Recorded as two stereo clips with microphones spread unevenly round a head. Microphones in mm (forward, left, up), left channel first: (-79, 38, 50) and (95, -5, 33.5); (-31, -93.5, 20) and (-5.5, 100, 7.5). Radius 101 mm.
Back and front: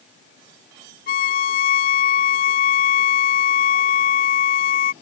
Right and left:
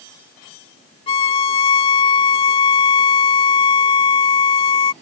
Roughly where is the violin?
Behind right.